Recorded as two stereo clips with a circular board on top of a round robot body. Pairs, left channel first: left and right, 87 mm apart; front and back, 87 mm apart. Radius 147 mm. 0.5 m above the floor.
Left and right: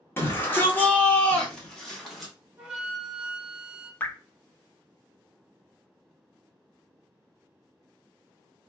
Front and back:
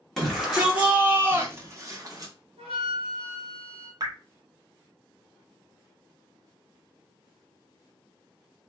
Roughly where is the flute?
Behind.